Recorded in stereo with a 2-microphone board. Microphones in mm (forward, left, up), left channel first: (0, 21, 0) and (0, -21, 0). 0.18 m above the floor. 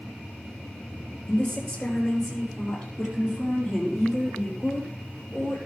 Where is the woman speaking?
25° left (ahead or behind), 4 m; by 5.6 s 10° right (ahead or behind), 6 m.